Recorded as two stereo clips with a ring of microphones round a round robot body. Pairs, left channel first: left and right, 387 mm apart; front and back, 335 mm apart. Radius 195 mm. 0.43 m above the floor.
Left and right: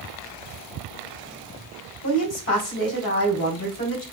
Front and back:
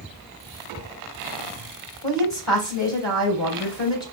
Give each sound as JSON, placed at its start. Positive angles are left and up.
{"t": 2.0, "sound": "a woman speaking", "azimuth_deg": 35, "distance_m": 3.5}